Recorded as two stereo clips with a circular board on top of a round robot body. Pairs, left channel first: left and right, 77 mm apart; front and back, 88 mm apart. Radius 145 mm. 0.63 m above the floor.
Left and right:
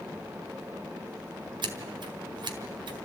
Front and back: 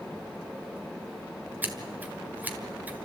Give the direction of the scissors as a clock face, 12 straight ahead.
4 o'clock.